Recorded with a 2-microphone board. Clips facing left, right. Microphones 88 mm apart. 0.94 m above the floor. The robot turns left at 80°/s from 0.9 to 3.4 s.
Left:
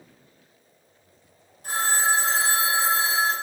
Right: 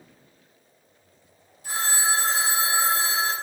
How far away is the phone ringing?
About 1.5 m.